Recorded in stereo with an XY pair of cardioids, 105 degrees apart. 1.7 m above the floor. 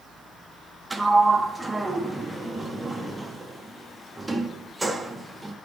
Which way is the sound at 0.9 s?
10° right.